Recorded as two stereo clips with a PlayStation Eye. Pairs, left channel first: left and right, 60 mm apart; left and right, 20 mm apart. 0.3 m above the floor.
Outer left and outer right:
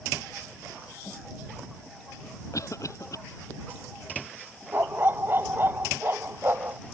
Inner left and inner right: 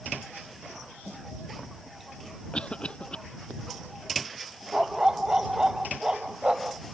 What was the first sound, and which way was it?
A cough, 60° left (ahead or behind).